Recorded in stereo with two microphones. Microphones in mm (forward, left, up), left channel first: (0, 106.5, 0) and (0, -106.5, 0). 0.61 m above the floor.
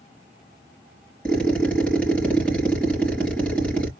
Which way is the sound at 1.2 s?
5° left (ahead or behind).